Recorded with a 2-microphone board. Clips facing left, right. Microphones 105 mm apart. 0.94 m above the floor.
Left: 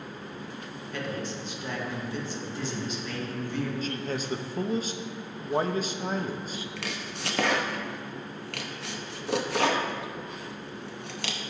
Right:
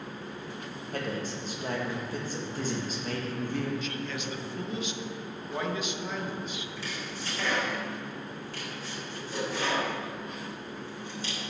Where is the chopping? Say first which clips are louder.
Left 1 dB; 70° left (ahead or behind), 0.6 m.